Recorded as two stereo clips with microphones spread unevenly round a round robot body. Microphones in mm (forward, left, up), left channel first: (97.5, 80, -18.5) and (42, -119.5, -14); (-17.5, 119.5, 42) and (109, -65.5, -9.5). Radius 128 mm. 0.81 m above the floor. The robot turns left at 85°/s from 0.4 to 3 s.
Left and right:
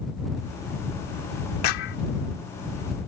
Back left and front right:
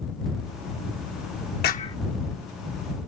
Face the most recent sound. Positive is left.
turn(degrees=-40)